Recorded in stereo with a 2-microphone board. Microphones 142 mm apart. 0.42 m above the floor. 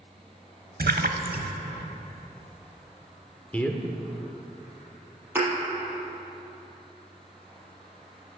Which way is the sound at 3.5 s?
10° left (ahead or behind).